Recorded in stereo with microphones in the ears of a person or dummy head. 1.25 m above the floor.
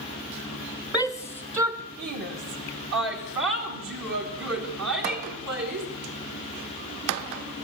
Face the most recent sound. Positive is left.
turn(degrees=-70)  # may be behind; listen again after turning